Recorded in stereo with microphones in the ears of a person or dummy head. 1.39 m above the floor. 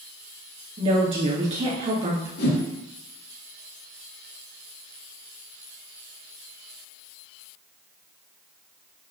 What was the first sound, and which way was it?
A woman speaking, 35° right (ahead or behind).